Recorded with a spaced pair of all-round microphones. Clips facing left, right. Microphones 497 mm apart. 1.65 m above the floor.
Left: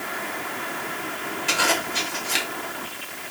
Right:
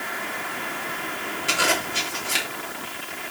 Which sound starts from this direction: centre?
A zipper, at 1.5 s.